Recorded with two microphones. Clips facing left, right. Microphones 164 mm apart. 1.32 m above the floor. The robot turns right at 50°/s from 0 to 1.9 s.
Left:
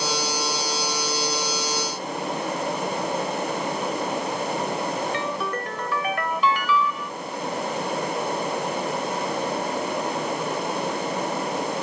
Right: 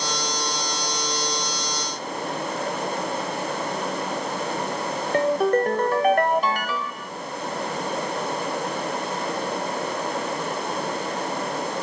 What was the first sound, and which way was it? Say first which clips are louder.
A ringtone: right 9 dB; 45° right (ahead or behind).